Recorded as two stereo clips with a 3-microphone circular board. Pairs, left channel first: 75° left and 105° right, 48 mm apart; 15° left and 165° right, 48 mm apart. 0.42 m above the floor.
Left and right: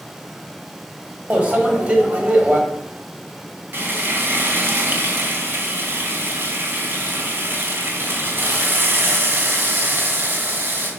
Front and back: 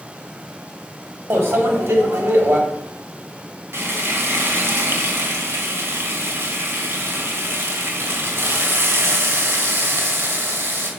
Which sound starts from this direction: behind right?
Frying, at 3.7 s.